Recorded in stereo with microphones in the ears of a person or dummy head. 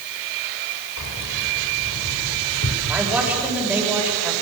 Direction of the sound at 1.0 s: 75° left (ahead or behind).